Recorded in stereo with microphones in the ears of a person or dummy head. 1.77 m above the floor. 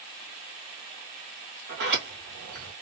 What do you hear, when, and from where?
1.7 s a sliding door: 55° right (ahead or behind), 1.8 m